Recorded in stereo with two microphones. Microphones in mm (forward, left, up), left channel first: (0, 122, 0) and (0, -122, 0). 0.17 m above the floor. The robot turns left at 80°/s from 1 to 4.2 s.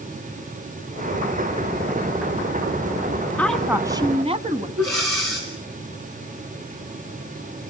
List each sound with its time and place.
3.4 s a woman speaking: 15° left, 1.3 m; by 4.7 s 50° right, 1.3 m
4.8 s breathing: 70° right (ahead or behind), 6.5 m